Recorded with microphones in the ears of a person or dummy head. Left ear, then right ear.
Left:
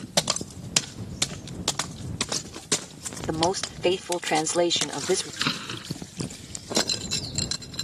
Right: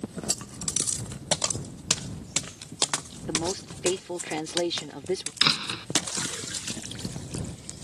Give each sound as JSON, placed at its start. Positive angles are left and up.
{"t": 3.3, "sound": "a woman speaking", "side_deg": 45}
{"t": 5.4, "sound": "a door slam", "side_deg": -25}